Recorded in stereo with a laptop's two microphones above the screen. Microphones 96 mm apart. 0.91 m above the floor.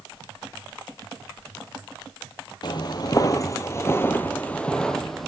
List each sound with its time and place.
2.6 s footsteps: 50° left (ahead or behind), 1.4 m; by 5.3 s centre (ahead or behind), 1.6 m